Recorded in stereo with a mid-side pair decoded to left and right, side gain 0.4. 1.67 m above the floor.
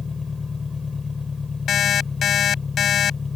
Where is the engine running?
40° left.